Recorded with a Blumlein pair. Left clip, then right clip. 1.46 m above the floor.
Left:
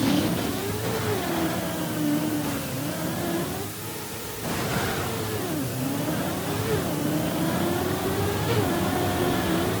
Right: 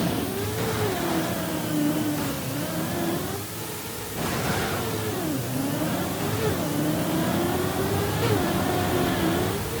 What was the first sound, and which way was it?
Only background noise.